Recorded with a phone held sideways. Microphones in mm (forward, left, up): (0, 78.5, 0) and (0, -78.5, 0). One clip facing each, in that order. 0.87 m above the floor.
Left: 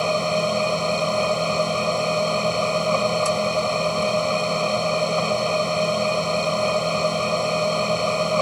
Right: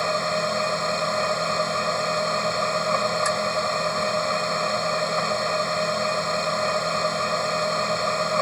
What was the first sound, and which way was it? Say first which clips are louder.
A machine running: left 4 dB; 15° left (ahead or behind).